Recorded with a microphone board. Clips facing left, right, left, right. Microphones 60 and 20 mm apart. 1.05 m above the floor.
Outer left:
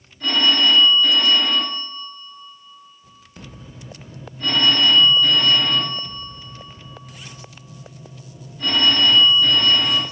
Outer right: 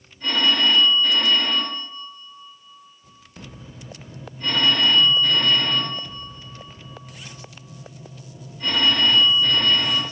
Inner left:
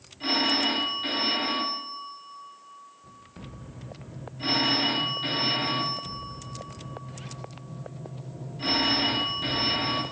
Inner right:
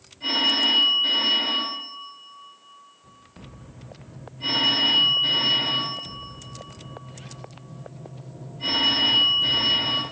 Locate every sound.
0.2 s a phone ringing: 80° left, 1.5 m